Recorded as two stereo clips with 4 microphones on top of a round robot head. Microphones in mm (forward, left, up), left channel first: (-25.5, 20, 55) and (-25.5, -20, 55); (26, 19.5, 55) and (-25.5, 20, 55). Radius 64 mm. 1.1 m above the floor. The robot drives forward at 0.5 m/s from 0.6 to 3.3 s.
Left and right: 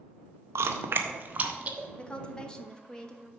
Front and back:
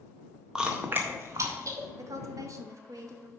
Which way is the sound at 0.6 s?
100° right.